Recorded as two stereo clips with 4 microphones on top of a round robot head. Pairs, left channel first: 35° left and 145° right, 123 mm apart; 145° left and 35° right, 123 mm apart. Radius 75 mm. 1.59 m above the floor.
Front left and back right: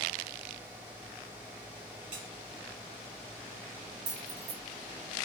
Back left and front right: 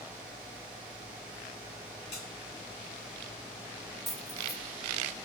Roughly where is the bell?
Behind.